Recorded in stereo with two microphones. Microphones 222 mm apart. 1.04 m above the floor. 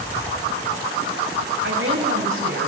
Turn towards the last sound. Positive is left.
turn(degrees=-70)  # may be behind; listen again after turning